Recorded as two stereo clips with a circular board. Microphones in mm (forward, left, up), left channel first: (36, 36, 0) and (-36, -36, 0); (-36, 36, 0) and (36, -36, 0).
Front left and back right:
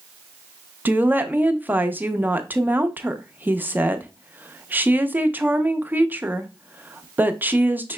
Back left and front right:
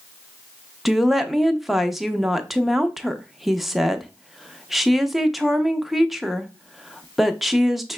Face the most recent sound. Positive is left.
turn(degrees=-130)